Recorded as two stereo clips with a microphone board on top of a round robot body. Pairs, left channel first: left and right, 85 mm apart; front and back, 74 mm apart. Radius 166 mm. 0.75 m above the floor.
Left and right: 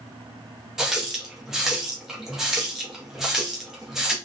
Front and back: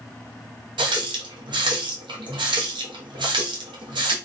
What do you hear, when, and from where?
0.8 s a running tap: 175° right, 0.7 m